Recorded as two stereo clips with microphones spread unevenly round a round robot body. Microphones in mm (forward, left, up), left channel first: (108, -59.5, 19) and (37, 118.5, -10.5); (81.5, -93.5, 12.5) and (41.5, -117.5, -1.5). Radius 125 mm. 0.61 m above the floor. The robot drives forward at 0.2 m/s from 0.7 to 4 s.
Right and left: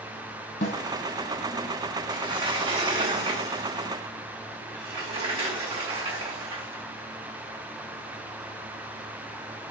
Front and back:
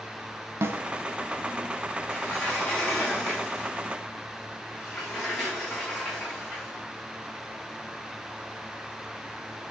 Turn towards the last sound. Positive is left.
turn(degrees=135)